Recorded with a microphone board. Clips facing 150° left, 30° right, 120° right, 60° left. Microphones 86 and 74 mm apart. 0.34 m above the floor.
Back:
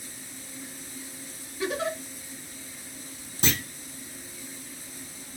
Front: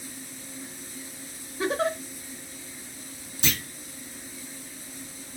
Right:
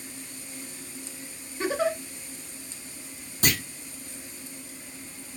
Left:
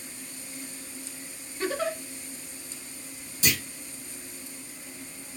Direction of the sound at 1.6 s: 60° right.